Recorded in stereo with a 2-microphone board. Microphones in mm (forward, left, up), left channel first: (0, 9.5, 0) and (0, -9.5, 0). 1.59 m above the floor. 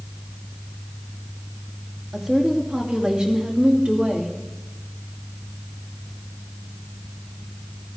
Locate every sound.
2.1 s a woman speaking: 45° right (ahead or behind), 2.5 m; by 4.4 s 80° right, 2.5 m